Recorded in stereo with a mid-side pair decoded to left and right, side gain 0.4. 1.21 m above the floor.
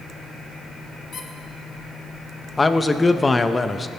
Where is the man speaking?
25° left, 0.9 m.